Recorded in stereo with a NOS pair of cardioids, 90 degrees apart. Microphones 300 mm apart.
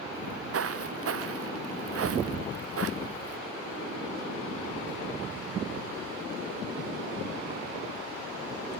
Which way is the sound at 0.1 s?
50° right.